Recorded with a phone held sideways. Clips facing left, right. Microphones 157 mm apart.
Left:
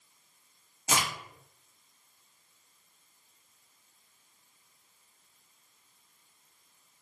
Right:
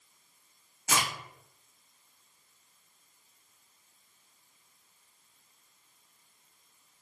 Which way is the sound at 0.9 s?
20° left (ahead or behind).